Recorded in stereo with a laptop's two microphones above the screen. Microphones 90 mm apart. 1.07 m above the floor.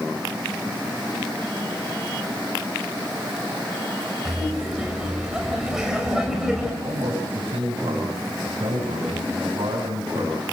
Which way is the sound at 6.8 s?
85° right.